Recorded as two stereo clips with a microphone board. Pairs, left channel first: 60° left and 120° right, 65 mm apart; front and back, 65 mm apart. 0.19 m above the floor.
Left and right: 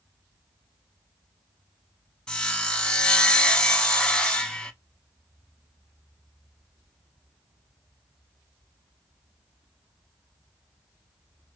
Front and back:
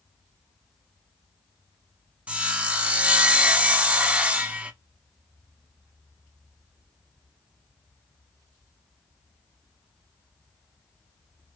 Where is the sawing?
125° left, 0.7 m.